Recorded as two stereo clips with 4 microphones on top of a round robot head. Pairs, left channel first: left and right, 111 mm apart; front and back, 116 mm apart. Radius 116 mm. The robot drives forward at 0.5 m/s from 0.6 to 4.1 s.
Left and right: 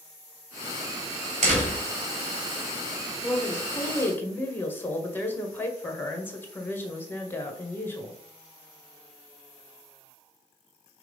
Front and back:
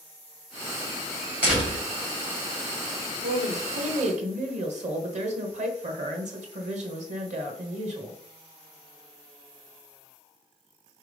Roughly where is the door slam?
Right.